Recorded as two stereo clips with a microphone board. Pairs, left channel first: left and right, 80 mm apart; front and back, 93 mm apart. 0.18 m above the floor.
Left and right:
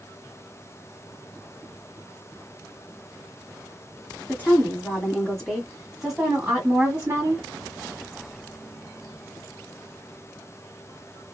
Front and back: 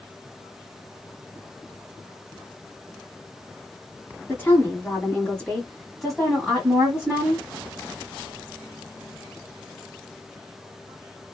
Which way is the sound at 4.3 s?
45° left.